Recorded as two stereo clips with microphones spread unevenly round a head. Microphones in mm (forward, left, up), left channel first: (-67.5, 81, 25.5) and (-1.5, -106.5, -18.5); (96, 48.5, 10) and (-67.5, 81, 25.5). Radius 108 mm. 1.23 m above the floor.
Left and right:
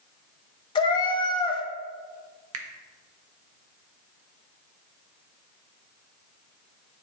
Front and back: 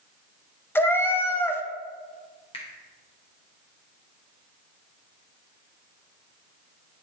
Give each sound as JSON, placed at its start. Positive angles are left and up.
{"t": 0.8, "sound": "a cat meowing", "azimuth_deg": 65, "distance_m": 0.7}
{"t": 2.5, "sound": "a finger snap", "azimuth_deg": -80, "distance_m": 0.9}